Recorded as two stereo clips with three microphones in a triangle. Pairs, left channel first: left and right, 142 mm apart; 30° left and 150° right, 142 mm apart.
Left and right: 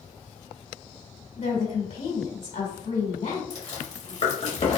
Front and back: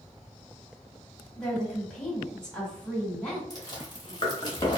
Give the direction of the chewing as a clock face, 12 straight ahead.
9 o'clock.